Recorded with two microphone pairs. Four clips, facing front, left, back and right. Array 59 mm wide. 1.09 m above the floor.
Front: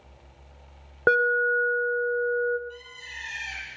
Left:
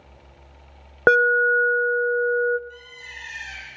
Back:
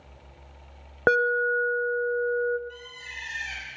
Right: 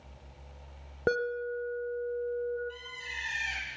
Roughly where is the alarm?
Left.